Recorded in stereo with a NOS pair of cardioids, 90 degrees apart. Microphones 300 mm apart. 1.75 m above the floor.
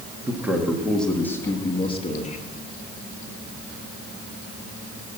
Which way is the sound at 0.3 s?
5° right.